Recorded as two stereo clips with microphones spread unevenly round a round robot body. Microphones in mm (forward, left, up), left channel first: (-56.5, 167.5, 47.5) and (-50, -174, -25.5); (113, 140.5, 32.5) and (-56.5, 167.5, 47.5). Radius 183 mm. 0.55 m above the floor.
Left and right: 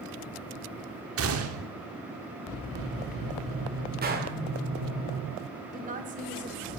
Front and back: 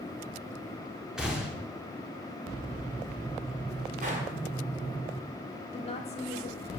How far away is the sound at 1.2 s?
About 1.2 m.